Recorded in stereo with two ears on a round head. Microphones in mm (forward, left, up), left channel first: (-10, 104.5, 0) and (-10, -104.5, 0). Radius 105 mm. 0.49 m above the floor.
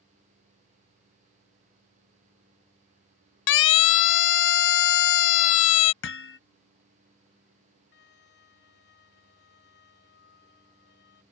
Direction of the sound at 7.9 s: 45° left (ahead or behind).